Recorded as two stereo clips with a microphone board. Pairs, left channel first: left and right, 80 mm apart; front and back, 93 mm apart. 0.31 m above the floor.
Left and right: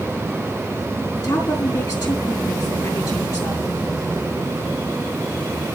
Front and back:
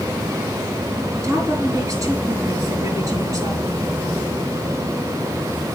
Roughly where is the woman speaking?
Behind left.